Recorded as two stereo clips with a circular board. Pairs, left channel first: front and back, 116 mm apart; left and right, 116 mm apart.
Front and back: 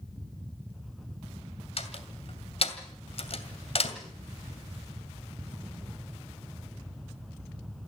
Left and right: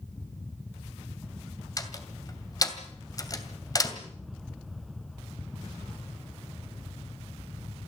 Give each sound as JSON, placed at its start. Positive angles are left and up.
{"t": 1.8, "sound": "a door slam", "azimuth_deg": 30, "distance_m": 2.5}